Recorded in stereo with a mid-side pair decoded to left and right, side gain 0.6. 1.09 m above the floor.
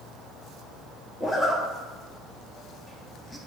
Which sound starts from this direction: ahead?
A zipper, at 1.2 s.